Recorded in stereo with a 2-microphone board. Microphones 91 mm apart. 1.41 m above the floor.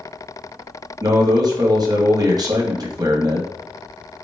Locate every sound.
1.0 s a man speaking: 45° right (ahead or behind), 1.2 m